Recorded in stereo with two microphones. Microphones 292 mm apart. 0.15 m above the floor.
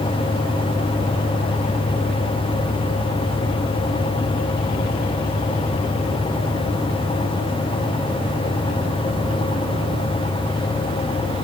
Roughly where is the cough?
No cough in this recording.